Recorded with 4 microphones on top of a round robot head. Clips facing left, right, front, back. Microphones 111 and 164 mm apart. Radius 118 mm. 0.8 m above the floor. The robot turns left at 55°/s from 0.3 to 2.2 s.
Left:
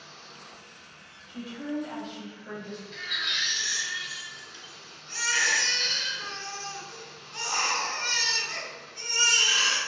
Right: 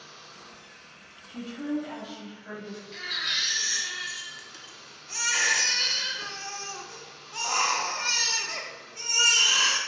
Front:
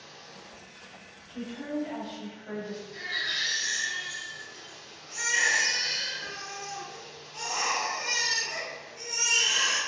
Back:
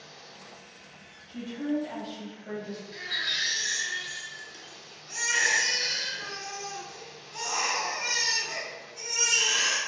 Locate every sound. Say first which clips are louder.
0.0 s running water: even, even; 165° right, 0.7 m; by 9.9 s 90° left, 0.7 m
1.3 s a woman speaking: right 3 dB, back 5 dB; 125° right, 1.4 m; by 2.8 s straight behind, 1.4 m
2.9 s a baby crying: even, even; 140° right, 0.7 m